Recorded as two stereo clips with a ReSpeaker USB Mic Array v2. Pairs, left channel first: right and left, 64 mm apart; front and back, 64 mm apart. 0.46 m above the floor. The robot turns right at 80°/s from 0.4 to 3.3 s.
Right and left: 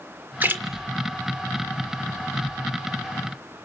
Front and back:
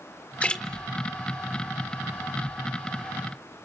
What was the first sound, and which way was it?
A splash, 50° left.